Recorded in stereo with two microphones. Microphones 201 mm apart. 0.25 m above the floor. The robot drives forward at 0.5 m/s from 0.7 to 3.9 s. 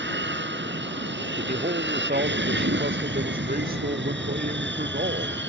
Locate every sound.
0.0 s an aircraft: 65° right (ahead or behind)
1.4 s a man speaking: 45° right (ahead or behind); by 5.4 s 50° right (ahead or behind)